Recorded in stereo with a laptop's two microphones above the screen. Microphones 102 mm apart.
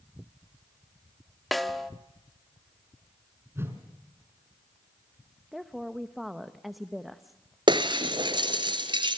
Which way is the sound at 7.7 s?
50° right (ahead or behind).